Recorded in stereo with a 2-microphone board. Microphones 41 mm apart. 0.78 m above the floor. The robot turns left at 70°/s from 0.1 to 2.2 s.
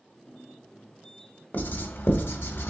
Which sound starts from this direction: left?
Writing, at 1.5 s.